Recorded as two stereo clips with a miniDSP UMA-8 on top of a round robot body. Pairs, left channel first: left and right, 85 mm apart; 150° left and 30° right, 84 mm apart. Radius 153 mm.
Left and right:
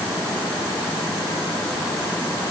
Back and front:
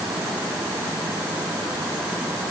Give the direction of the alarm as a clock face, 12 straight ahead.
I don't hear an alarm.